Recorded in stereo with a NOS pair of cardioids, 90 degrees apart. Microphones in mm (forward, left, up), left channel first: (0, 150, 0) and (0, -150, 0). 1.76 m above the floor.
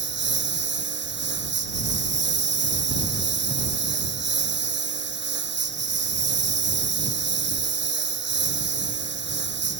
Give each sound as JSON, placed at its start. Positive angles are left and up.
{"t": 0.0, "sound": "a lawn mower", "azimuth_deg": -40}